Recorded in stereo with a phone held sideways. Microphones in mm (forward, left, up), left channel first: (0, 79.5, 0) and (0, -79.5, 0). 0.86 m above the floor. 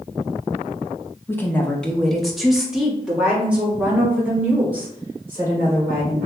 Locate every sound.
1.3 s a woman speaking: 15° left (ahead or behind), 0.7 m; by 6.3 s 15° right (ahead or behind), 3.5 m